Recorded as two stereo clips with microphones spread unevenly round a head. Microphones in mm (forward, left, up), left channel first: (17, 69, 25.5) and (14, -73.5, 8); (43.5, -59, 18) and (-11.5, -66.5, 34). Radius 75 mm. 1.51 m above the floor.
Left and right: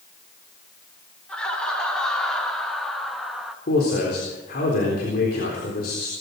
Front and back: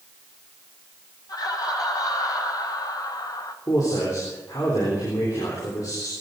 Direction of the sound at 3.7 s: 65° left.